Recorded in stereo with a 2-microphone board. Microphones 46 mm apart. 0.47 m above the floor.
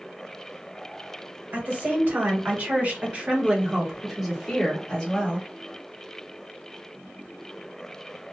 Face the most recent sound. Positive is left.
turn(degrees=20)  # may be behind; listen again after turning